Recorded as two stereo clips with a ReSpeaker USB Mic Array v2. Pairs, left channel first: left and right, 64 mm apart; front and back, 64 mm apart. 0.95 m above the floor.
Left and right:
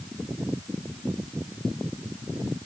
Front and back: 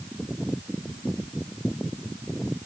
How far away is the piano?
I don't hear a piano.